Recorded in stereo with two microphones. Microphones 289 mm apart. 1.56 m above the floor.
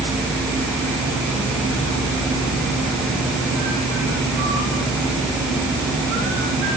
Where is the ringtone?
No ringtone in this recording.